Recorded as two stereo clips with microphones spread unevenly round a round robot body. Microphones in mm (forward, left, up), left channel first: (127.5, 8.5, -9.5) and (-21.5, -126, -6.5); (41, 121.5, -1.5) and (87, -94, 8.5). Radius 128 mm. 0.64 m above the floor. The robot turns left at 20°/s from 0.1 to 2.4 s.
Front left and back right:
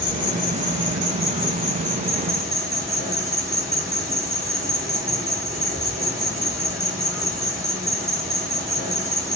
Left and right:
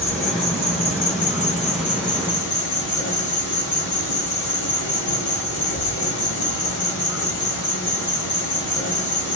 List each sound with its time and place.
0.0 s an insect: straight behind, 1.8 m; by 9.4 s 130° left, 1.8 m